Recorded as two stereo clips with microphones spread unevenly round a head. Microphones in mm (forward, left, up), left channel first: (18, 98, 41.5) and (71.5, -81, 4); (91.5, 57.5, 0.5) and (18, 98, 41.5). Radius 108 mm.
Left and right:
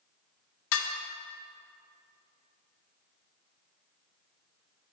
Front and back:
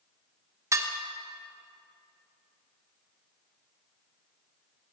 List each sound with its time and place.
0.7 s dishes clattering: 95° left, 0.7 m